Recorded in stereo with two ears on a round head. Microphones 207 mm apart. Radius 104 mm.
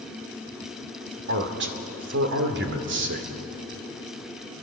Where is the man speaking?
50° right (ahead or behind), 2.5 m.